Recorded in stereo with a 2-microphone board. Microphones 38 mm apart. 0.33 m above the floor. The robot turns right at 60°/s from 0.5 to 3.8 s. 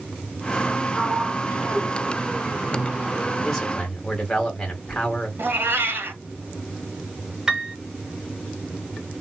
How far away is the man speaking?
About 1.8 m.